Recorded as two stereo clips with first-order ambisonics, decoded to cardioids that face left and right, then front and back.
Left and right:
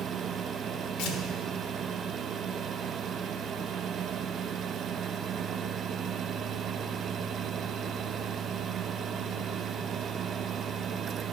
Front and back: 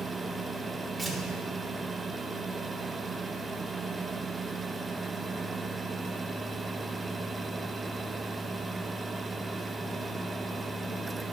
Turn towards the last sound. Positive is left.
turn(degrees=85)